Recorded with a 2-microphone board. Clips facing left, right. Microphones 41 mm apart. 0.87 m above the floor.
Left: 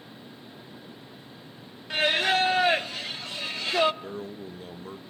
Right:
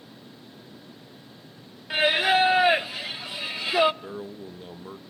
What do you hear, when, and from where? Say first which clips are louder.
1.9 s singing: right 3 dB; 15° right (ahead or behind), 0.6 m
4.0 s a man speaking: even; 10° right (ahead or behind), 0.8 m